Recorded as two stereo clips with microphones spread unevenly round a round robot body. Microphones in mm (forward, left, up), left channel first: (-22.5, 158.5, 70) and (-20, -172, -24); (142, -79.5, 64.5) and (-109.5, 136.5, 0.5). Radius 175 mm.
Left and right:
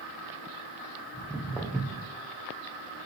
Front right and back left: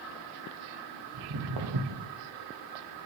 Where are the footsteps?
175° left, 1.1 m.